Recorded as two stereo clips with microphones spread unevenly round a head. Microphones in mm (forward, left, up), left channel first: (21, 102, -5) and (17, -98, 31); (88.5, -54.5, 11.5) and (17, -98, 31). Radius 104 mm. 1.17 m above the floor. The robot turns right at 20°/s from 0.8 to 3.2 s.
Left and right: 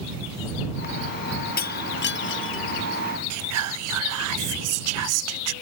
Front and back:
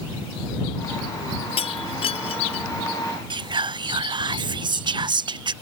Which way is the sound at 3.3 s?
115° right.